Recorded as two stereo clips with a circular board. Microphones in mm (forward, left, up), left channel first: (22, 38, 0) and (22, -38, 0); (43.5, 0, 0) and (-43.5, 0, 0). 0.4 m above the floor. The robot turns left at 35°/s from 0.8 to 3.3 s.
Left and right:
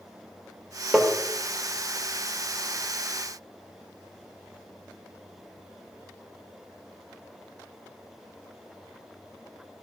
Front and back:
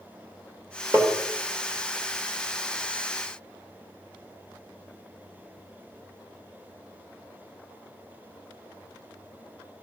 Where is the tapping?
160° right, 1.5 m; by 1.1 s 165° right, 1.5 m.